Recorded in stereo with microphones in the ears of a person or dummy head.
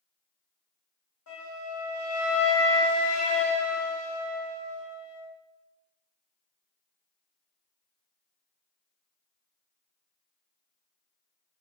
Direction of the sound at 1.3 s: 85° left.